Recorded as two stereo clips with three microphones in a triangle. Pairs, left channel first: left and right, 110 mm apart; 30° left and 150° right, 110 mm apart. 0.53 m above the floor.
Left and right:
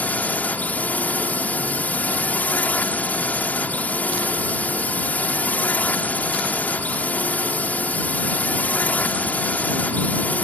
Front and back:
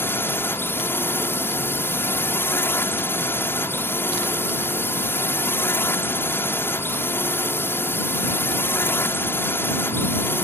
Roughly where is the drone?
Ahead left.